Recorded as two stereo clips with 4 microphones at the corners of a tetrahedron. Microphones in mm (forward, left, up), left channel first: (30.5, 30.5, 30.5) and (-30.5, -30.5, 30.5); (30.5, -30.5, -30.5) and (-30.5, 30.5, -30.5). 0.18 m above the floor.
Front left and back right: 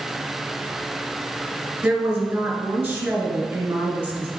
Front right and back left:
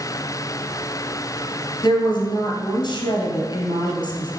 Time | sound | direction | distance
1.8 | a woman speaking | 70° right | 2.5 m